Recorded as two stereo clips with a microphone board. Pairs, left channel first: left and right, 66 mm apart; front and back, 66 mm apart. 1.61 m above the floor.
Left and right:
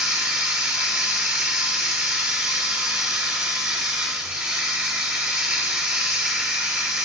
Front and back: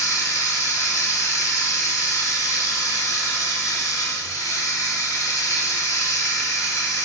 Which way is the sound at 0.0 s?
25° right.